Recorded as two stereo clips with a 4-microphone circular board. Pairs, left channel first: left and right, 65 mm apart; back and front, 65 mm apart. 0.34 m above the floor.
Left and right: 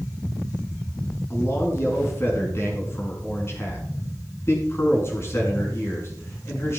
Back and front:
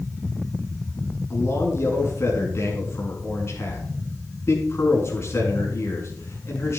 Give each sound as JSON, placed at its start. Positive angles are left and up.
{"t": 1.3, "sound": "a man speaking", "azimuth_deg": 135, "distance_m": 4.5}